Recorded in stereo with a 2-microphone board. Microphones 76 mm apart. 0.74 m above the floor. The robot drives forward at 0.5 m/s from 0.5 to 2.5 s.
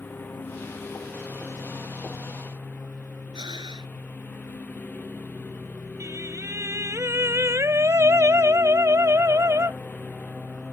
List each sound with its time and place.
0.0 s a lawn mower: 25° left (ahead or behind)
3.3 s breathing: 75° right (ahead or behind)
6.0 s singing: 40° right (ahead or behind)